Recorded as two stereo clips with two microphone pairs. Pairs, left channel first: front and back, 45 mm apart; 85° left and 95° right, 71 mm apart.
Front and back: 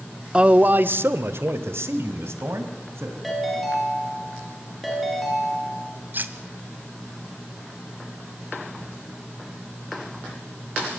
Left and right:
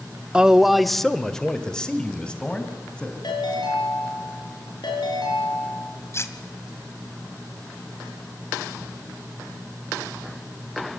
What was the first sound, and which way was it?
A man speaking, 150° right.